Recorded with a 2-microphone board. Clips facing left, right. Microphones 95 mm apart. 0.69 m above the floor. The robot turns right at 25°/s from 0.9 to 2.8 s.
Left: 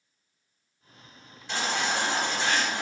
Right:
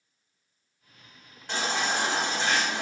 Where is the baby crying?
125° right, 1.5 m; by 2.8 s 90° right, 1.5 m.